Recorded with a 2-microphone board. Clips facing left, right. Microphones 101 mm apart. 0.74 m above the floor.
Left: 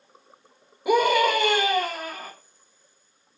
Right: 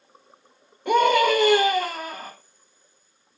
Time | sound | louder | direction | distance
0.8 | a scream | right 2 dB | 5° left (ahead or behind) | 0.9 m